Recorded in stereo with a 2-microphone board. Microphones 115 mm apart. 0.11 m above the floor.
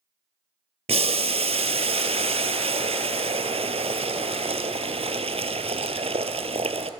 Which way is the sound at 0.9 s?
70° right (ahead or behind).